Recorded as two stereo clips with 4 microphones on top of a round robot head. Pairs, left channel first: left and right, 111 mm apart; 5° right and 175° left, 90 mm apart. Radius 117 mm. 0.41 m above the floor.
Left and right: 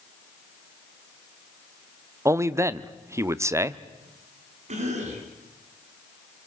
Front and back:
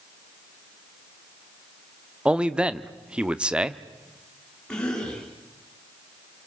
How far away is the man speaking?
About 0.9 m.